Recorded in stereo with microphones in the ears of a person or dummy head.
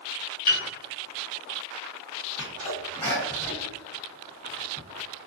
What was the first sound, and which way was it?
A piano, 50° left (ahead or behind).